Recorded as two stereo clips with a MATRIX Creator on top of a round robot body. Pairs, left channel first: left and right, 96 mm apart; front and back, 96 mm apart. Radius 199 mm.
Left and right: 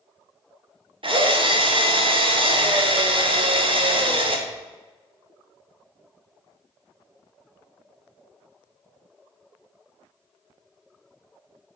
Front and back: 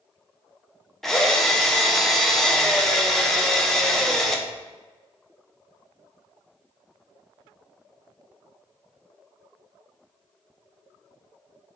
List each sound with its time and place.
1.0 s a drill: 85° right, 1.7 m